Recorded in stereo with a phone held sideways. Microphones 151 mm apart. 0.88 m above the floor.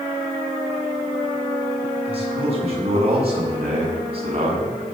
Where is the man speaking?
40° right (ahead or behind), 7.5 m.